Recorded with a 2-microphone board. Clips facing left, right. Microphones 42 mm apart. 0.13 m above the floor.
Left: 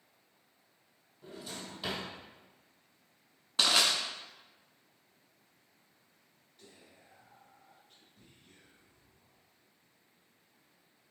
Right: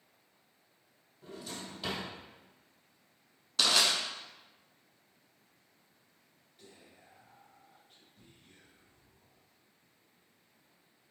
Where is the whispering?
10° right (ahead or behind), 1.9 m.